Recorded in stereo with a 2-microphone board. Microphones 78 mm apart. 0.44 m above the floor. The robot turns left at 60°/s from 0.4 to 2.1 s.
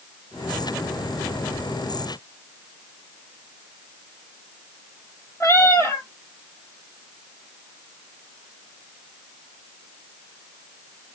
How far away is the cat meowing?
About 1.4 m.